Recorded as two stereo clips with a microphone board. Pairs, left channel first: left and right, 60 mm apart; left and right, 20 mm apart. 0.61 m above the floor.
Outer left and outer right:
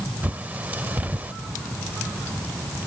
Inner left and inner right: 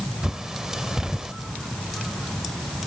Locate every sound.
0.2 s a bird: 25° right (ahead or behind), 0.7 m